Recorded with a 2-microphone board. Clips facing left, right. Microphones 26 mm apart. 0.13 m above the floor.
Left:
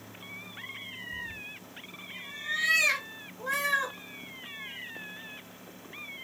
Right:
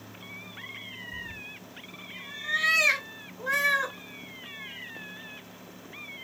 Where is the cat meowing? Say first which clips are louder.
Even; 20° right (ahead or behind), 0.6 m.